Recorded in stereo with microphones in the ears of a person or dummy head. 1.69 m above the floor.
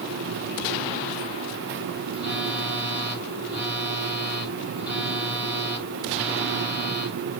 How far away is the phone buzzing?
About 6.5 m.